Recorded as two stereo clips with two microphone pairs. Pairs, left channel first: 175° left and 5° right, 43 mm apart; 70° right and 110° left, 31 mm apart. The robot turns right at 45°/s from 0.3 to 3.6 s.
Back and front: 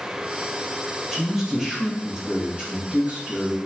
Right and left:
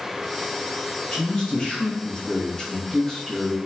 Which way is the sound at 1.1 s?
95° right.